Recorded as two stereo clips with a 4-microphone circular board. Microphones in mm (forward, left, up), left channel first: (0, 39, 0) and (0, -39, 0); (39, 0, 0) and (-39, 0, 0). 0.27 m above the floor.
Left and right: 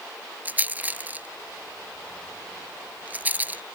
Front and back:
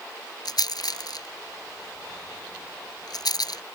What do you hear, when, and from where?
0.5 s a rattle: 25° right